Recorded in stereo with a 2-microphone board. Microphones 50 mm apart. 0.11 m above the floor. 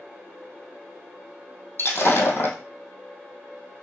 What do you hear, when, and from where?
1.8 s breaking glass: 50° left (ahead or behind), 2 m